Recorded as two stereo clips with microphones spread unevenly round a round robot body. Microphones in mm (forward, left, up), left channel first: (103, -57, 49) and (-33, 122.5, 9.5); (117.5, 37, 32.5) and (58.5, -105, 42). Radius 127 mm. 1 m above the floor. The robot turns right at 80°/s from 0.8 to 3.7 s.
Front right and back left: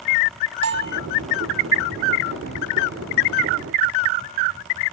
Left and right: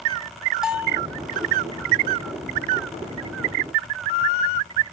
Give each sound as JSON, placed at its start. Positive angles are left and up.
{"t": 0.6, "sound": "a bell", "azimuth_deg": 165, "distance_m": 0.9}